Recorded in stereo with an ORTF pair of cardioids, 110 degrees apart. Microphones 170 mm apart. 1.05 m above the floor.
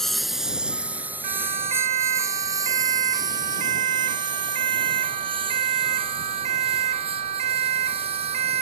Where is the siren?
45° right.